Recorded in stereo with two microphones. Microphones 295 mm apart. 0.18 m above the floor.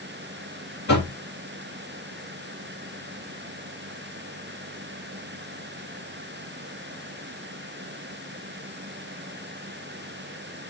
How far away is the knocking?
About 4 m.